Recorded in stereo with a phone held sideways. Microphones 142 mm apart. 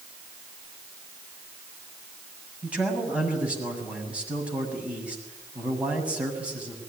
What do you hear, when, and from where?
2.6 s a man speaking: 10° right (ahead or behind), 7 m